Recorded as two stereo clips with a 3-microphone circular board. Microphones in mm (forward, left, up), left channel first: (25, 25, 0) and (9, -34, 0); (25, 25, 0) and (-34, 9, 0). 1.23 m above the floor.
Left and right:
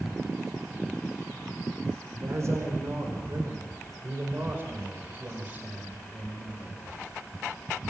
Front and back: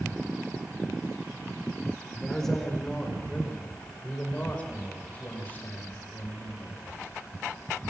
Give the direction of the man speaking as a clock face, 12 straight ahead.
2 o'clock.